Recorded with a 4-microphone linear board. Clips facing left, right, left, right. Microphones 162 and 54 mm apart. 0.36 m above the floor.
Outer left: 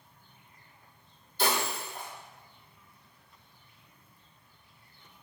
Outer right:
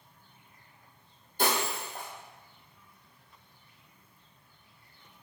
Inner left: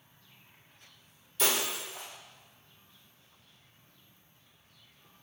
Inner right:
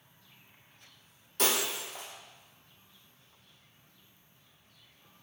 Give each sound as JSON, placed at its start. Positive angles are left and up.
{"t": 1.4, "sound": "breaking glass", "side_deg": -50, "distance_m": 1.5}